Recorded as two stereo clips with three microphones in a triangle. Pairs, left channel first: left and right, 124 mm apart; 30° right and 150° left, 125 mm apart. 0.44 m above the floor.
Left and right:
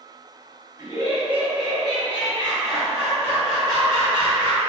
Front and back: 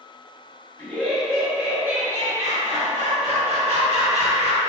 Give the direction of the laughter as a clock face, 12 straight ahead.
3 o'clock.